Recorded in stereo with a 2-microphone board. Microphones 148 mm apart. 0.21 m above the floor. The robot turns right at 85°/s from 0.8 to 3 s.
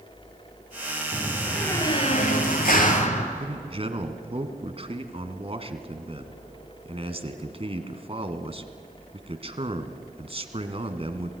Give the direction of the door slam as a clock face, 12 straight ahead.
1 o'clock.